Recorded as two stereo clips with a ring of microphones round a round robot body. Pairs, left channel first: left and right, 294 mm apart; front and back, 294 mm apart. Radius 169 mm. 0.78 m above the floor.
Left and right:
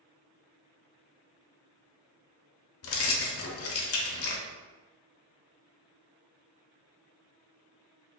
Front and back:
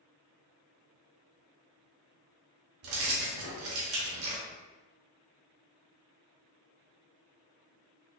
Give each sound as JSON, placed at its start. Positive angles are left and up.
{"t": 2.8, "sound": "keys jangling", "azimuth_deg": 135, "distance_m": 0.8}